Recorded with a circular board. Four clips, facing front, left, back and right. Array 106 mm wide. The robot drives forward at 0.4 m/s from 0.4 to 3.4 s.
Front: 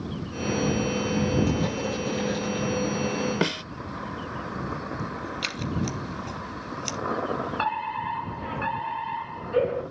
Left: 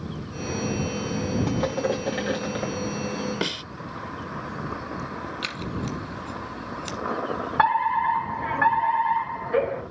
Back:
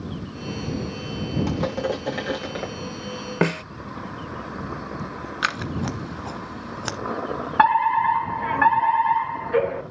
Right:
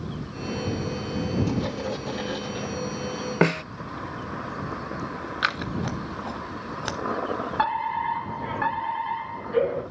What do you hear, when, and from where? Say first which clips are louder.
1.5 s crushing: left 3 dB, back 2 dB; 135° left, 6 m
3.4 s a snare drum: right 8 dB, back 4 dB; 115° right, 0.5 m
5.4 s scissors: right 7 dB, back 6 dB; 140° right, 1.2 m
7.6 s a fire alarm: left 6 dB, back 16 dB; 155° left, 7 m